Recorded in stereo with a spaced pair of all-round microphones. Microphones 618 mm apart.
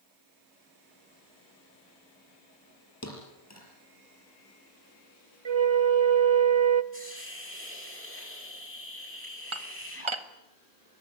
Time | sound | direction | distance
3.0 | a thud | 25° left (ahead or behind) | 5 m
5.5 | a flute | 50° right (ahead or behind) | 0.8 m
6.9 | a hiss | 20° left (ahead or behind) | 9.5 m
9.5 | dishes clattering | 55° right (ahead or behind) | 1.2 m